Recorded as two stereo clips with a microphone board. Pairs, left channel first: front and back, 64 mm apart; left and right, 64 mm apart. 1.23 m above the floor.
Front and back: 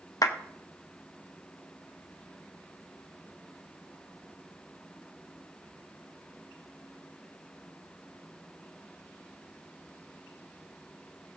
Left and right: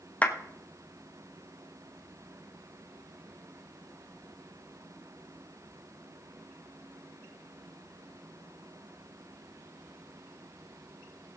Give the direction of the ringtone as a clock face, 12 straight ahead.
I don't hear a ringtone.